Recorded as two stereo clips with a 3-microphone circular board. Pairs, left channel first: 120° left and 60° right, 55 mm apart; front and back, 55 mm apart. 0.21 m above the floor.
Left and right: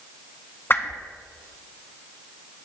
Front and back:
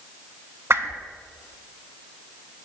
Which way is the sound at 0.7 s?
160° left.